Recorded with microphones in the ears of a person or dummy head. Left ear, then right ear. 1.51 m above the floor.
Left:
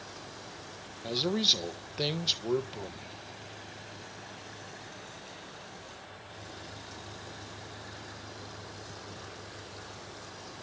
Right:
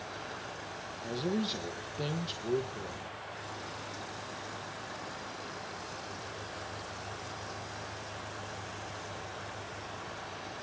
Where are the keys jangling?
I don't hear keys jangling.